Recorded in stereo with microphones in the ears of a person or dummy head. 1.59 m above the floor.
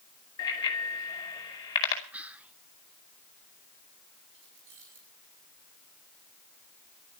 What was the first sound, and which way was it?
A bicycle bell, 20° left (ahead or behind).